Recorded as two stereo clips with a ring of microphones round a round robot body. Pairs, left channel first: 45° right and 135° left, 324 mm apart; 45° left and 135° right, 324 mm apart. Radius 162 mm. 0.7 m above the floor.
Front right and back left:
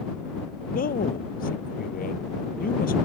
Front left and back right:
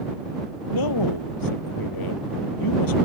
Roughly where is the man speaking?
Ahead.